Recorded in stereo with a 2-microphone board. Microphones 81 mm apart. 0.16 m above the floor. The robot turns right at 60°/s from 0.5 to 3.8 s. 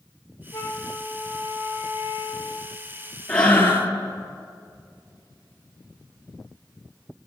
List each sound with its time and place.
0.5 s a flute: 135° left, 1.5 m; by 2.8 s 90° right, 1.5 m
3.3 s breathing: 10° left, 1.2 m; by 3.9 s 40° left, 1.2 m